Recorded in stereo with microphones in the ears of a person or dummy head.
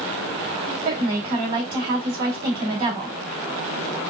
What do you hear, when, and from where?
0.8 s a woman speaking: 25° right (ahead or behind), 1.5 m